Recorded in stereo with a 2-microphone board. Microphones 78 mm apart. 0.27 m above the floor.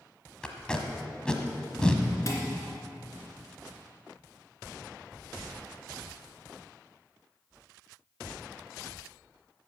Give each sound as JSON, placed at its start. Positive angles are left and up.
{"t": 0.4, "sound": "tape being pulled", "side_deg": 10, "distance_m": 1.1}
{"t": 2.3, "sound": "dishes clattering", "side_deg": 40, "distance_m": 2.5}